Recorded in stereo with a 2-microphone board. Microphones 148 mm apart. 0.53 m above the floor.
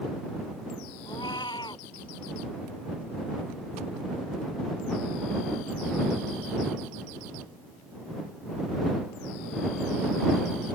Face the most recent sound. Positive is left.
turn(degrees=30)  # may be behind; listen again after turning